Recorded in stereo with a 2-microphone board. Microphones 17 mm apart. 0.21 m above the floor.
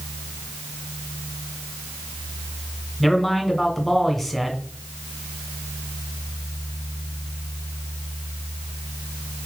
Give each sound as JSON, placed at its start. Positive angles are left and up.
{"t": 3.0, "sound": "a man speaking", "side_deg": 5, "distance_m": 1.9}